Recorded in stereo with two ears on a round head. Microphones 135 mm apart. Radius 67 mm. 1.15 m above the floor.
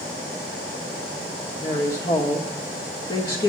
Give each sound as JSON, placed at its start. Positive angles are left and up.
{"t": 1.6, "sound": "a woman speaking", "side_deg": 30, "distance_m": 1.7}